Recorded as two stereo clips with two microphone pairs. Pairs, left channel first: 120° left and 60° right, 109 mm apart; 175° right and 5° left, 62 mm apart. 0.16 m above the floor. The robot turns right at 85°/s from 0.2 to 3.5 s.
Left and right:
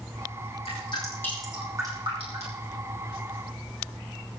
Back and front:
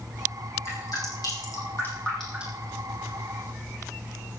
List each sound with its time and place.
0.7 s dripping: 140° left, 8.5 m; by 2.6 s 50° right, 8.5 m